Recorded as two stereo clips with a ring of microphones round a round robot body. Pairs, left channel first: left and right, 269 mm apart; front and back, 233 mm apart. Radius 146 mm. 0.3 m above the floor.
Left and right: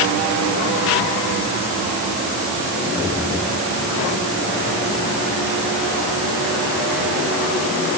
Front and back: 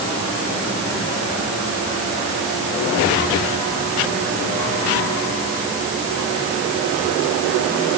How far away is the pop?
I don't hear a pop.